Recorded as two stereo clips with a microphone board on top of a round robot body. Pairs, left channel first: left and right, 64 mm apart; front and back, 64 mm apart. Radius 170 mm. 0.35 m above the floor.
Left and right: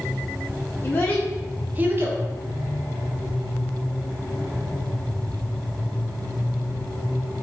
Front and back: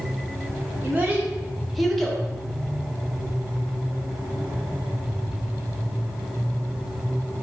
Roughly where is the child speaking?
Behind left.